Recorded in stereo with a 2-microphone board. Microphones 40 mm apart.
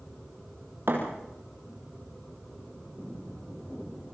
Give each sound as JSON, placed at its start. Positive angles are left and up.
{"t": 0.9, "sound": "a thud", "side_deg": -65, "distance_m": 4.5}